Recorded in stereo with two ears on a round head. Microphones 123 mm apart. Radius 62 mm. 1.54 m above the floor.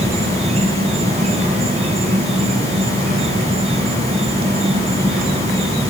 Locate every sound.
0.0 s an insect: 45° right (ahead or behind), 0.8 m